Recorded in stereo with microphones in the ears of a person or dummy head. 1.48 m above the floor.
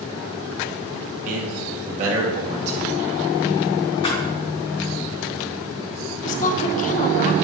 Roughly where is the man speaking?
Right.